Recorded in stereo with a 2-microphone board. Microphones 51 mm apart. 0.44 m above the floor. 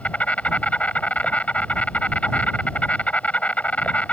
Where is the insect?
25° left (ahead or behind).